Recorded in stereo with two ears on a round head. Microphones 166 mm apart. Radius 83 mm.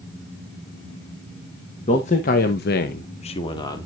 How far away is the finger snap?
No finger snap in this recording.